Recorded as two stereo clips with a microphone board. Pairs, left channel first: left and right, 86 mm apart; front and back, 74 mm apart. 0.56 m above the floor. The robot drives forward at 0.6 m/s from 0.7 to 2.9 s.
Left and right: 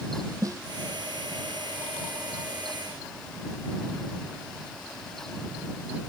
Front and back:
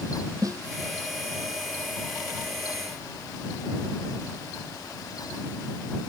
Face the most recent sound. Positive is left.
turn(degrees=-145)